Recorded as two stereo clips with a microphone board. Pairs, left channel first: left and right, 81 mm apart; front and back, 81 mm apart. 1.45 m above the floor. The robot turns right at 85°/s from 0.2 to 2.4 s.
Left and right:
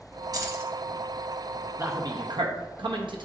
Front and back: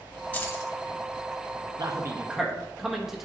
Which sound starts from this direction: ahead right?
Keys jangling, at 0.3 s.